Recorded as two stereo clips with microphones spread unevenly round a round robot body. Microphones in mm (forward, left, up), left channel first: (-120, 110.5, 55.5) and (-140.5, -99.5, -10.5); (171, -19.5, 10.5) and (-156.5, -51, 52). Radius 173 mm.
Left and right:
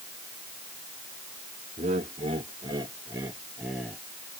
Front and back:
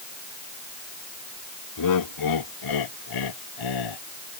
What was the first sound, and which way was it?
Laughter, 25° right.